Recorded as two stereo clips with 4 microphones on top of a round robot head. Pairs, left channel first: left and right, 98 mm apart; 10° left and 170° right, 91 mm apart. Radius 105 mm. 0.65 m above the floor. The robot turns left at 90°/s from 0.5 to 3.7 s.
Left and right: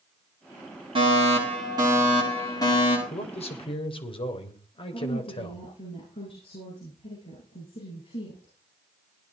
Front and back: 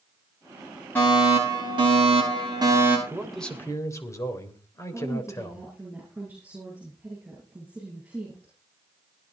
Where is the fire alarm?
65° right, 10 m; by 3.0 s 115° left, 10 m.